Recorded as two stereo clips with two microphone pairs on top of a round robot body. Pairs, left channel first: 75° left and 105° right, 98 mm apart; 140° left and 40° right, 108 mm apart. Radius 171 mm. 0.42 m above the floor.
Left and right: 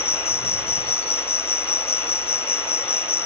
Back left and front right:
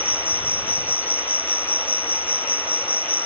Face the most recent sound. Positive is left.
turn(degrees=65)